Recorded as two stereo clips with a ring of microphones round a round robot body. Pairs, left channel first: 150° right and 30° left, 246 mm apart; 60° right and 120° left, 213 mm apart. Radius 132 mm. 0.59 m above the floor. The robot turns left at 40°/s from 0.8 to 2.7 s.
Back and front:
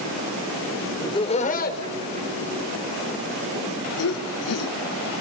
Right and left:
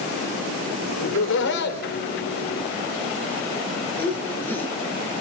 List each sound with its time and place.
1.0 s laughter: 75° right, 2.5 m; by 4.8 s 140° right, 2.5 m